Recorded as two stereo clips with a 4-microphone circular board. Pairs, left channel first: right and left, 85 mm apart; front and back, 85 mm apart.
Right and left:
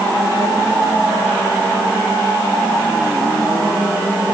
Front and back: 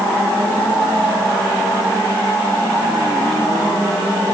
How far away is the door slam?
I don't hear a door slam.